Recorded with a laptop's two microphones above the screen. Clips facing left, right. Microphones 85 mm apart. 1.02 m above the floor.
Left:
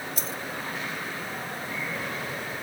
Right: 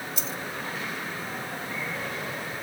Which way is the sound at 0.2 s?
40° left (ahead or behind).